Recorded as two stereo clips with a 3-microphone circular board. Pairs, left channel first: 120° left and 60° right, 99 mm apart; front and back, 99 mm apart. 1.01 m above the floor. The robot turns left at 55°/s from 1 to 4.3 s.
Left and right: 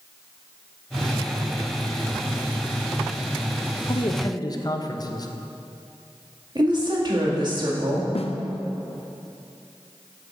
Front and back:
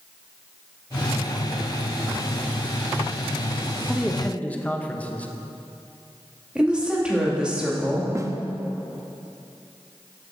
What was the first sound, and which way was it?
A man speaking, 95° left.